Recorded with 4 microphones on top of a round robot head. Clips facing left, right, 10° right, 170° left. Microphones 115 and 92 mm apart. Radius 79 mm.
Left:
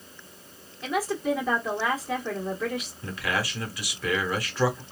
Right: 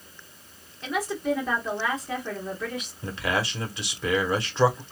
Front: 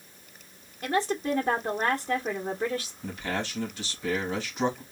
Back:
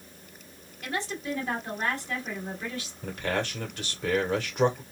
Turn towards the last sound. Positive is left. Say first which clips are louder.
# right 4 dB, back 2 dB
turn(degrees=-155)